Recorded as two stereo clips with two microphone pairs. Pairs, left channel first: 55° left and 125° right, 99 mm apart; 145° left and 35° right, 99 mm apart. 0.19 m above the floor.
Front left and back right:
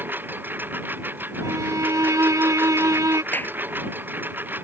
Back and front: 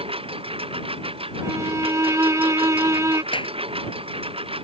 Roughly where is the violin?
Right.